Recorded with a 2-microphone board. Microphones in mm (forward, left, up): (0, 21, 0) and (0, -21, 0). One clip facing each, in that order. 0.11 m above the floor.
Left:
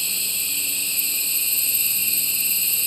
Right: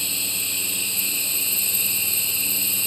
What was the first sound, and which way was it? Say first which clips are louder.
An insect: even; 30° right (ahead or behind).